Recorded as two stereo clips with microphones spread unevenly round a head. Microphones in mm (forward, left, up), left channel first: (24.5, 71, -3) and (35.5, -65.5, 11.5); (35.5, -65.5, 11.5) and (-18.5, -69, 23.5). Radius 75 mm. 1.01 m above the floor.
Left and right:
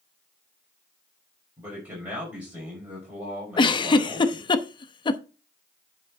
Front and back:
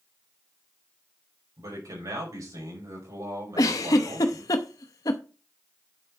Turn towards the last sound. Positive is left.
turn(degrees=35)